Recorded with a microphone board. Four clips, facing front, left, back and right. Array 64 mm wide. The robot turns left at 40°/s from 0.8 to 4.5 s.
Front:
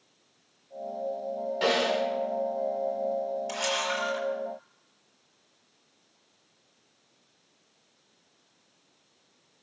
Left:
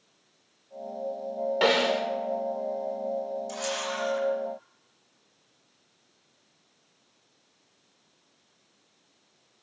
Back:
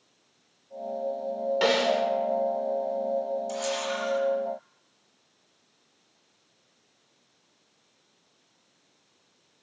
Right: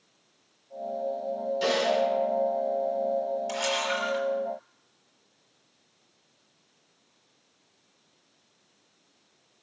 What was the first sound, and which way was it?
A snare drum, 115° left.